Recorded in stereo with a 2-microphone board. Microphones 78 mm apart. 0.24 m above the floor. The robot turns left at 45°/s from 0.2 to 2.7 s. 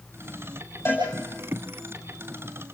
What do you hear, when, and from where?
0.8 s a cowbell: 30° left (ahead or behind), 9.5 m; by 1.1 s 20° left (ahead or behind), 9.5 m